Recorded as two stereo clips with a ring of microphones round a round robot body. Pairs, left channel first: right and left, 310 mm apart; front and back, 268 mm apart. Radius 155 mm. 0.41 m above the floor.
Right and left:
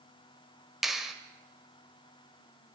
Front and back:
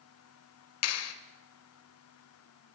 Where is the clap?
Straight ahead, 1.5 m.